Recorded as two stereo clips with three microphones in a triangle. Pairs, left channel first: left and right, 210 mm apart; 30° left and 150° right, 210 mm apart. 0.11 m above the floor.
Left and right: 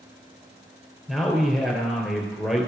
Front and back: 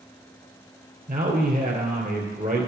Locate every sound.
1.1 s a man speaking: straight behind, 2.5 m